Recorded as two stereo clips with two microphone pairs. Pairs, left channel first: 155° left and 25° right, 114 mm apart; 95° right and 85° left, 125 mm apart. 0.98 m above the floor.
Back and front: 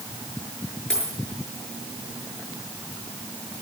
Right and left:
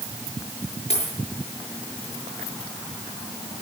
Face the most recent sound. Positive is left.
turn(degrees=-125)